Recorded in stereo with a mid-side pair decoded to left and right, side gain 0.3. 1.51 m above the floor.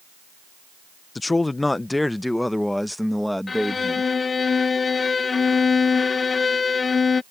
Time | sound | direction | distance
1.1 | a man speaking | 35° left | ?
3.5 | a violin | 50° left | ?